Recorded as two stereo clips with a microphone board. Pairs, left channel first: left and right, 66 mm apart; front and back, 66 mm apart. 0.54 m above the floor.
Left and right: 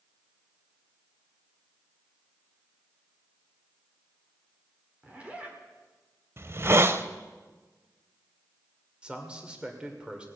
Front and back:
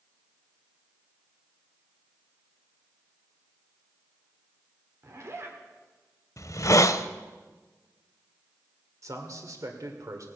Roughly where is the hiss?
Ahead right.